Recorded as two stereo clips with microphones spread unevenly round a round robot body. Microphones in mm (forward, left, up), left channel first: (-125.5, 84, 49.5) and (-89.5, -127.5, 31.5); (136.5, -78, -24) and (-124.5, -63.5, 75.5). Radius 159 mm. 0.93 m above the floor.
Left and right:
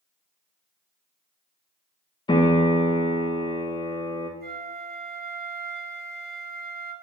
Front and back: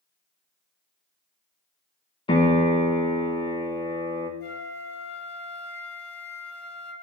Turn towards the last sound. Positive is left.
turn(degrees=-65)